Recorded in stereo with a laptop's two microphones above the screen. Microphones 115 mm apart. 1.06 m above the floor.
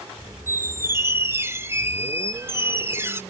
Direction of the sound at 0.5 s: 20° right (ahead or behind).